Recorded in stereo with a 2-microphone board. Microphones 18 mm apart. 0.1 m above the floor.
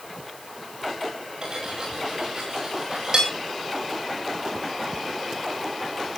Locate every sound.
1.4 s cutlery clinking: 45° right (ahead or behind), 9 m